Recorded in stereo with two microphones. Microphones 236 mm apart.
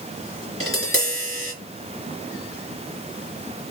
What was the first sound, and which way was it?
Tapping, 65° left (ahead or behind).